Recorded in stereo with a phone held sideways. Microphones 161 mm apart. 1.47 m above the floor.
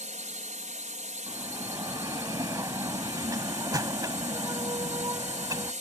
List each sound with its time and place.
0.0 s a drone: 50° right (ahead or behind)
1.3 s a bell: 20° right (ahead or behind)